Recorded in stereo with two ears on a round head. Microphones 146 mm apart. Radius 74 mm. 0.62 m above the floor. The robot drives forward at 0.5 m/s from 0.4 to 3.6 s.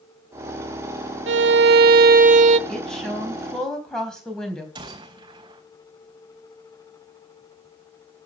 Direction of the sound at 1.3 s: 90° right.